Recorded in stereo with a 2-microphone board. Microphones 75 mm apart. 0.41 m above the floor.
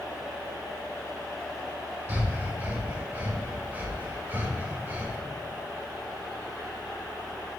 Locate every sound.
2.1 s breathing: 20° right (ahead or behind), 0.9 m